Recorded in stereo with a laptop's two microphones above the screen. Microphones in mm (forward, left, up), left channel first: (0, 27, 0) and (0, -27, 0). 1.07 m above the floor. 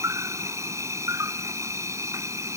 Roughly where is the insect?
Right.